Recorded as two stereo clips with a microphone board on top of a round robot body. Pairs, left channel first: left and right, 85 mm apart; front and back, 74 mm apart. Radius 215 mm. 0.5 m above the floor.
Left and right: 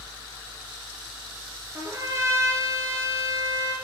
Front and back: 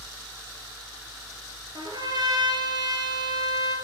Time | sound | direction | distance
1.8 | a trumpet | 150° right | 4 m